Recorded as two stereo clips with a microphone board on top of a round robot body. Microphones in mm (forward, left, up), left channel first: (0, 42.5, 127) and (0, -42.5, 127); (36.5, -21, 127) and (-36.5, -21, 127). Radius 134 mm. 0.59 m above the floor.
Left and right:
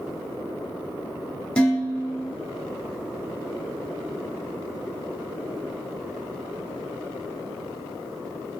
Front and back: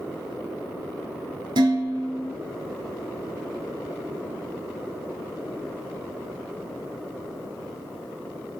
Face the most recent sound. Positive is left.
turn(degrees=170)